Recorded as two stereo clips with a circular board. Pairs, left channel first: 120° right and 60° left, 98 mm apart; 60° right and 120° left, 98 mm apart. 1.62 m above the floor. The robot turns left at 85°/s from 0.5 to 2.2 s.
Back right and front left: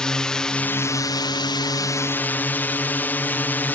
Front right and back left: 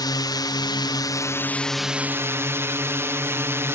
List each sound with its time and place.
0.0 s a drone: 40° right; by 3.8 s 175° left